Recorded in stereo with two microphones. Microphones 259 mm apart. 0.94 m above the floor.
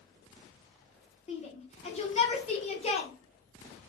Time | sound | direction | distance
1.3 | a shout | 25° left (ahead or behind) | 0.8 m